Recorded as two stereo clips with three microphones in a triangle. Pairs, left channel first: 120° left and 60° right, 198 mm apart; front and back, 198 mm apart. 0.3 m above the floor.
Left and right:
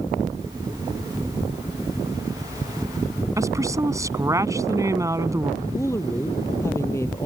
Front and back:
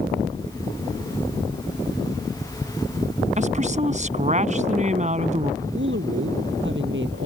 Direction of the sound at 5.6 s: 165° right.